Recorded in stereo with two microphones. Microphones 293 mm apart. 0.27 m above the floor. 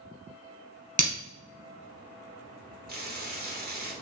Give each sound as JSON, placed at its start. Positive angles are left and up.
{"t": 1.0, "sound": "breaking glass", "side_deg": -25, "distance_m": 1.4}
{"t": 2.9, "sound": "frying", "side_deg": -35, "distance_m": 2.0}